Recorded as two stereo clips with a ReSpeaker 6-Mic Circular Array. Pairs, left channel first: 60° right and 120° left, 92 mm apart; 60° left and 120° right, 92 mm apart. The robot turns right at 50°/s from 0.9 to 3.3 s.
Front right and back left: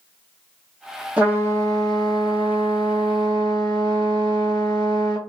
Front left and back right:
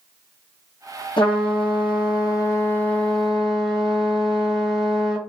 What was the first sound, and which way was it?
A trumpet, 45° left.